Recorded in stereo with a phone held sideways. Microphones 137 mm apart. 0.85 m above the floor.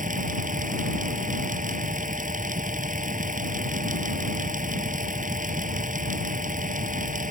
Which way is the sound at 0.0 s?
70° right (ahead or behind).